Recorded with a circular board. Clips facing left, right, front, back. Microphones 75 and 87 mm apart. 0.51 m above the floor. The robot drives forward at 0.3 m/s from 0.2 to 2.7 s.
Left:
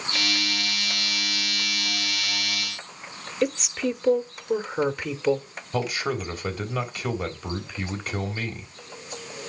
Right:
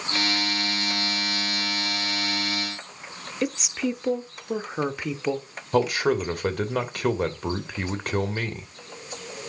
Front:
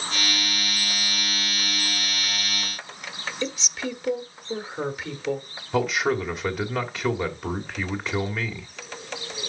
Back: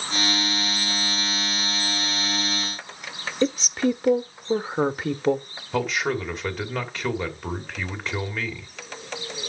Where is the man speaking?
85° right, 2 m.